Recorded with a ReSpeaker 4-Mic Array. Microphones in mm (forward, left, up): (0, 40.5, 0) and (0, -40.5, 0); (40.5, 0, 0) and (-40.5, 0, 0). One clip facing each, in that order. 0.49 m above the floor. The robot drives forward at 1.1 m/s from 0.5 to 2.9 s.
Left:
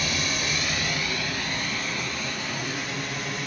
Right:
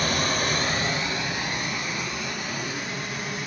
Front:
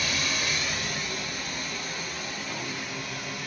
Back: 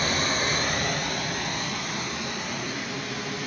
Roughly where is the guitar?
No guitar in this recording.